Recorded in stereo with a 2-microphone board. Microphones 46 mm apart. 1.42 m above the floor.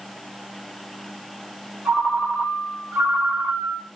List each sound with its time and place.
1.9 s a ringtone: 70° right (ahead or behind), 2.5 m